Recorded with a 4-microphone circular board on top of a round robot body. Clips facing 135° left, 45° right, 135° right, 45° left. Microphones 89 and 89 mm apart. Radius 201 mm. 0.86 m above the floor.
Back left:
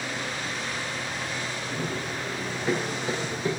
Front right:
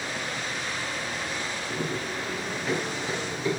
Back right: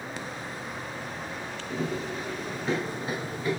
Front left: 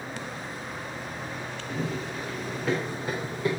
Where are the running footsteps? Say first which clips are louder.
Front right 1 dB, back right 1 dB; 60° left, 5 m; by 3.5 s 70° left, 5 m.